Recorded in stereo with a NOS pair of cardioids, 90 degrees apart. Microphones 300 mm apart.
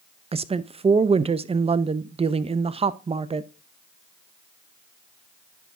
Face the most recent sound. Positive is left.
turn(degrees=-20)